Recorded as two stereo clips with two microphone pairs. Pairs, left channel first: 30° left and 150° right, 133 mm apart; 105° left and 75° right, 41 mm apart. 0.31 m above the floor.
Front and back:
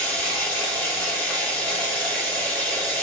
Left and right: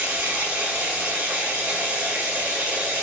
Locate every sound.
0.0 s running water: 45° right, 1.7 m